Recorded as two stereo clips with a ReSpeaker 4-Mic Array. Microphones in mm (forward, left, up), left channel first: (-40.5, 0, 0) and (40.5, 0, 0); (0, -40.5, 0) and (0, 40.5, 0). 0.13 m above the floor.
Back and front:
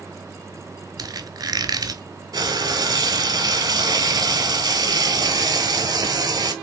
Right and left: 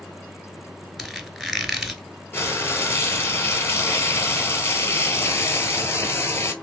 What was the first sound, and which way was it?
A squeak, 5° left.